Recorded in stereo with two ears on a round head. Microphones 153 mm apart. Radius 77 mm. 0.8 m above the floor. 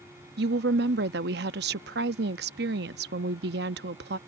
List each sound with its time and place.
0.4 s a woman speaking: 65° right (ahead or behind)